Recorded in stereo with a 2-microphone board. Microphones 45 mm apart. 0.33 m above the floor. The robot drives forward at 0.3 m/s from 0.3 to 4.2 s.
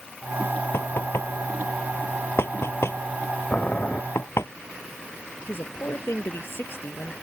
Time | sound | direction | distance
0.7 | knocking | 75° left (ahead or behind) | ?
3.5 | boiling | 30° left (ahead or behind) | ?
5.5 | a woman speaking | 65° left (ahead or behind) | ?